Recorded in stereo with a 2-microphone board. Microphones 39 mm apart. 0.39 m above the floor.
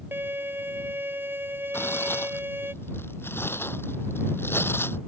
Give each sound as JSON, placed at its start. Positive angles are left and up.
{"t": 0.1, "sound": "a violin", "side_deg": -65}
{"t": 1.7, "sound": "tearing paper", "side_deg": 75}